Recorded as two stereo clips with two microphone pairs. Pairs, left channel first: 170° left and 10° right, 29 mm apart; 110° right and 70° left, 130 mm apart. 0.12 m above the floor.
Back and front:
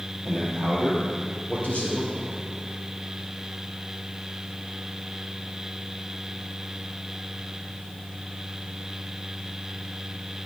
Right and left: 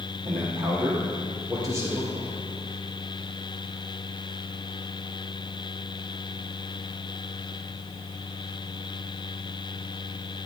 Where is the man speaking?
95° left, 4 m; by 2.3 s 150° left, 3.5 m.